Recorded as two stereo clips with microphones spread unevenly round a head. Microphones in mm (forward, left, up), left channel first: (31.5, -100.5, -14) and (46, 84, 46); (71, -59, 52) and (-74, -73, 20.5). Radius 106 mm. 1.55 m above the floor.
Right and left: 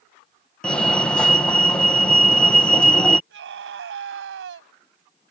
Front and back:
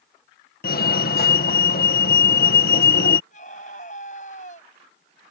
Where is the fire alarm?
15° right.